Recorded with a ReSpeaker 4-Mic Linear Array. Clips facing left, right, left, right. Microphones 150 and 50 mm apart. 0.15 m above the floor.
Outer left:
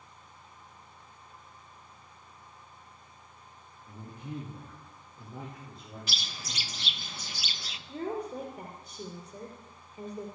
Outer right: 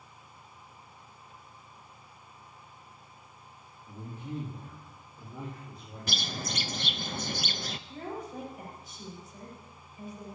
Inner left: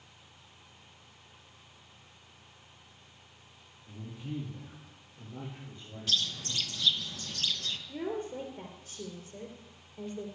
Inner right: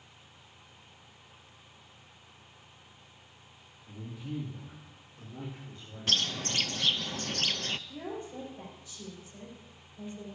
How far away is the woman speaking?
About 3 m.